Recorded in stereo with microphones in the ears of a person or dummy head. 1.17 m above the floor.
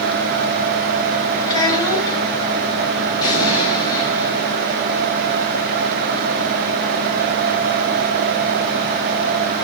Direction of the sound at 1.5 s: 20° left (ahead or behind).